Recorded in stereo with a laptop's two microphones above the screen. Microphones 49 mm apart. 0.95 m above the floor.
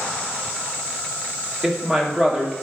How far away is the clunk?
No clunk in this recording.